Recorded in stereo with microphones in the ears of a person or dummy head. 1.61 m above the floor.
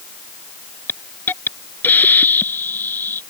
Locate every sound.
0.9 s a hiss: 10° left (ahead or behind)